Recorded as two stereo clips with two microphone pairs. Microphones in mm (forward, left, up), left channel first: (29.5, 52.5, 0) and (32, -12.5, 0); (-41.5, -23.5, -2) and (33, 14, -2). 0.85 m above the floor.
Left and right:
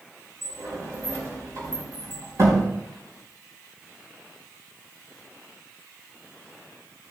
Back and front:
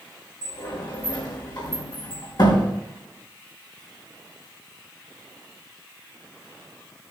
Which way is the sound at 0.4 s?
125° right.